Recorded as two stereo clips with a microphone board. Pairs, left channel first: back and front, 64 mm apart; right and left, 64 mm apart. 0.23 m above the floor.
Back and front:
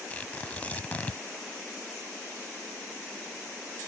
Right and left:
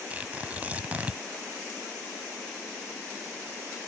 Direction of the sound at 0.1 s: 135° left.